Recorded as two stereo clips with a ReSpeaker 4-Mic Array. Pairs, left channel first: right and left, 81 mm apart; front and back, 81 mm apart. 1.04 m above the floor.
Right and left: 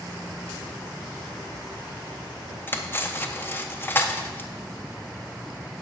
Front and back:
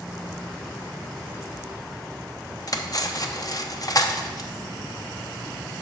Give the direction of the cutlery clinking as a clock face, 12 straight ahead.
1 o'clock.